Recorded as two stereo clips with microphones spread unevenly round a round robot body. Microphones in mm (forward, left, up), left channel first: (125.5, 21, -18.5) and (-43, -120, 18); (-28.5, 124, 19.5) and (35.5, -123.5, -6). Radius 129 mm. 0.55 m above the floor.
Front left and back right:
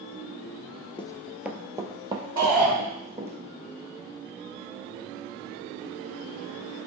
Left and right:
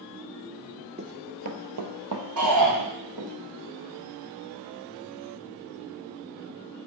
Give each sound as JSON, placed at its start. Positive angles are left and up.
{"t": 1.0, "sound": "running footsteps", "azimuth_deg": -20, "distance_m": 0.5}
{"t": 2.4, "sound": "a shout", "azimuth_deg": -70, "distance_m": 2.5}